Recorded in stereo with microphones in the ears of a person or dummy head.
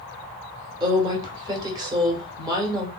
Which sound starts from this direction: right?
A woman speaking, at 0.8 s.